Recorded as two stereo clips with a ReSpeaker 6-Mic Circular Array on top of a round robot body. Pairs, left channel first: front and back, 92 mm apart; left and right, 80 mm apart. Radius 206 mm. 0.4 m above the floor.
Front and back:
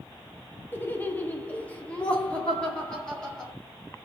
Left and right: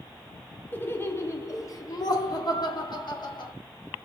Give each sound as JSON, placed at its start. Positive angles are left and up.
{"t": 0.7, "sound": "laughter", "azimuth_deg": 45, "distance_m": 1.1}